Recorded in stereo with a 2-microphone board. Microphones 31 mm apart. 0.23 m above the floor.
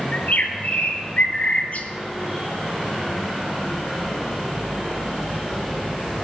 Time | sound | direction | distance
0.1 | a bird | 45° left (ahead or behind) | 1.3 m